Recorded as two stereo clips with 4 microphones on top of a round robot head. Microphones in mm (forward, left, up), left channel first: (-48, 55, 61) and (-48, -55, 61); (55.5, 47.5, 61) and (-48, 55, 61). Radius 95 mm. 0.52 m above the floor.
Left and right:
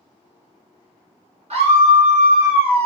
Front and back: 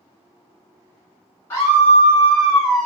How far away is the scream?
About 1.6 m.